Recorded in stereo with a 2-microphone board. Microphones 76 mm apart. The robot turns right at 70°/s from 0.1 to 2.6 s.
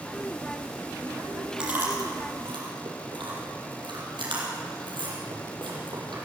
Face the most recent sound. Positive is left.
turn(degrees=-75)  # may be behind; listen again after turning